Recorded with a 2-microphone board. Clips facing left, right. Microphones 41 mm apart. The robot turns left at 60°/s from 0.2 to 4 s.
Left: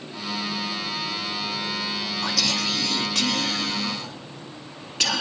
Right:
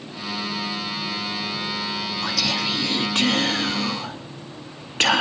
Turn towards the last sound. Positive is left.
turn(degrees=-110)